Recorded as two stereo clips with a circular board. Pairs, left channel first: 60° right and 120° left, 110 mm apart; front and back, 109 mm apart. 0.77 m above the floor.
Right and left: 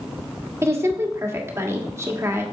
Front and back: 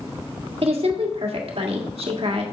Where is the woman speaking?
Straight behind, 1.7 m.